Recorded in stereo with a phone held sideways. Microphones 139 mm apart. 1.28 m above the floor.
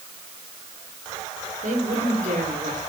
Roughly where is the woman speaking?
Right.